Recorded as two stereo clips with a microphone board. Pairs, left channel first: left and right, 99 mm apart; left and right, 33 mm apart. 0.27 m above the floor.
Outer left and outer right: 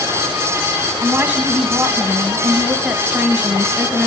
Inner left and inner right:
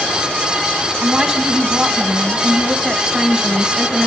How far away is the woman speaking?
About 1.5 m.